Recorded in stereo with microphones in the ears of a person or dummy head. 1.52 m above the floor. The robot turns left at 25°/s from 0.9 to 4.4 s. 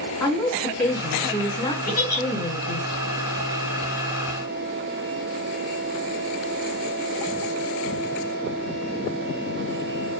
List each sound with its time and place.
0.2 s a woman speaking: straight behind, 1.9 m; by 2.9 s 130° left, 1.9 m
1.9 s a giggle: 10° left (ahead or behind), 1.9 m; by 2.2 s 20° left (ahead or behind), 1.9 m